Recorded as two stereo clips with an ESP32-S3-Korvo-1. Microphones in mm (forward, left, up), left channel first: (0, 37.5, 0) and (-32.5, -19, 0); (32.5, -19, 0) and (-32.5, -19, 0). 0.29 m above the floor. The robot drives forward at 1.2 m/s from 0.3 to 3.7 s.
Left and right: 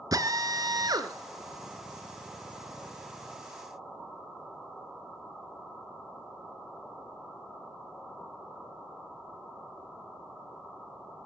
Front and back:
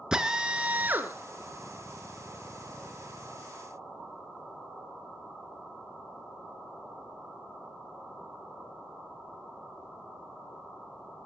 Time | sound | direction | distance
0.1 | a drill | 100° right | 2 m